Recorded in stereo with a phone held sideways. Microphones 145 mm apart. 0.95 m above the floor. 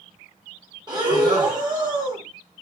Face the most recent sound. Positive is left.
turn(degrees=-30)  # may be behind; listen again after turning